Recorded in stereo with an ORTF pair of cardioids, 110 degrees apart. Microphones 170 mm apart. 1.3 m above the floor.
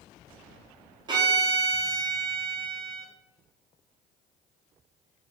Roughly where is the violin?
Ahead right.